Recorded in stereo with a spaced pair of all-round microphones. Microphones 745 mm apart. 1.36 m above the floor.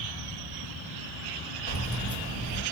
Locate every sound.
1.7 s keys jangling: 50° left (ahead or behind), 2 m